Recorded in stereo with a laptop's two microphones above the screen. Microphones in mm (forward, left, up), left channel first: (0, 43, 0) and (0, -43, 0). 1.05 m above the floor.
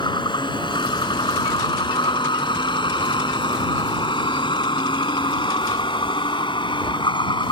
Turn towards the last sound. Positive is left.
turn(degrees=80)